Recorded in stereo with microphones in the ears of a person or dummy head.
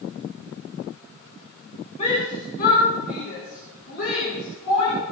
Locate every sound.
2.0 s a shout: 30° left (ahead or behind), 3 m; by 5.0 s 55° left (ahead or behind), 7.5 m